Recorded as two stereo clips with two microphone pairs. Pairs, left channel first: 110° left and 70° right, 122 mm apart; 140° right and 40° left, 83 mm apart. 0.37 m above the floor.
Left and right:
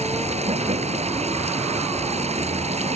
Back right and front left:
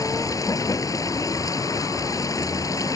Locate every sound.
0.0 s running water: 95° right